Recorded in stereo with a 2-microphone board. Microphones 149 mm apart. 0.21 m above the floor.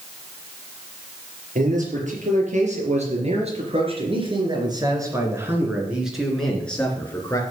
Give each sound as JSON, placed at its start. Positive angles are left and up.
{"t": 1.6, "sound": "a man speaking", "side_deg": -60, "distance_m": 4.5}